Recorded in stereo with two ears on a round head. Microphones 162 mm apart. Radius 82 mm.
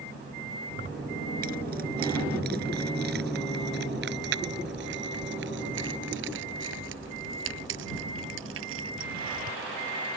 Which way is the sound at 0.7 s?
50° right (ahead or behind).